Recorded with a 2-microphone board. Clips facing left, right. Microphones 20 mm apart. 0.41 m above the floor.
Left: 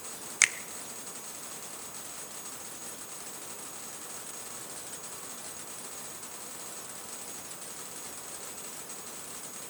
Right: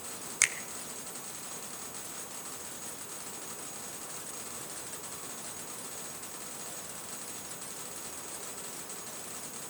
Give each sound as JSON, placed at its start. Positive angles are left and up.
{"t": 0.4, "sound": "a finger snap", "side_deg": 20, "distance_m": 0.8}